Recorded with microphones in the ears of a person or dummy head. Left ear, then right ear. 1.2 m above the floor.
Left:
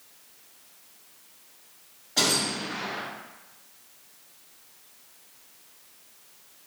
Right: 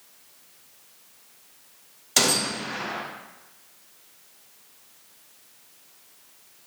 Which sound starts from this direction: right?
A gunshot, at 2.2 s.